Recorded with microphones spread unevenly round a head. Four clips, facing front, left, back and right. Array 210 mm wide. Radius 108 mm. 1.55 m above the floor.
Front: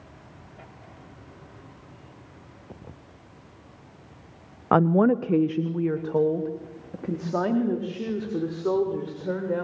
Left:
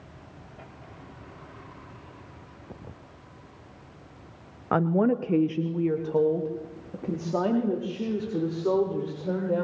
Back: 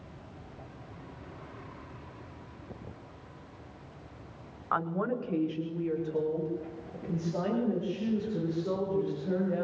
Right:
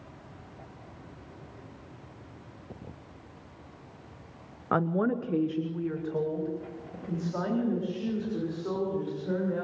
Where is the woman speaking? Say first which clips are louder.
Left 4 dB, front 12 dB; 5° left, 0.7 m; by 9.6 s 35° left, 7.5 m.